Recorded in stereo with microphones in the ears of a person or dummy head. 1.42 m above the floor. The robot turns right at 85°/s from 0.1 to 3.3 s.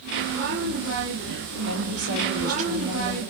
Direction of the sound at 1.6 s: 125° right.